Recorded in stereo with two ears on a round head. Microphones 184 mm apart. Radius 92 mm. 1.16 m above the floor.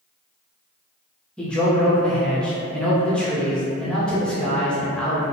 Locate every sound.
1.4 s a man speaking: 5° left (ahead or behind), 0.5 m